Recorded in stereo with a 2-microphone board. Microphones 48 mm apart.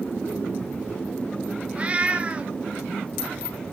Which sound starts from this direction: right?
A cat meowing, at 1.8 s.